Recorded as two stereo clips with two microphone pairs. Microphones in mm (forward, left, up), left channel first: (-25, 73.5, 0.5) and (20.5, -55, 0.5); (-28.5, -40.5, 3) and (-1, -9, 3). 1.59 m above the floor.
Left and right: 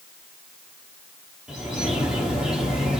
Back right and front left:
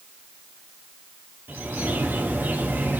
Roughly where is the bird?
Ahead.